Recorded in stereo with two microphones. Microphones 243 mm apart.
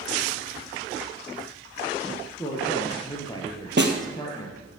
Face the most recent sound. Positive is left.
turn(degrees=-45)  # may be behind; listen again after turning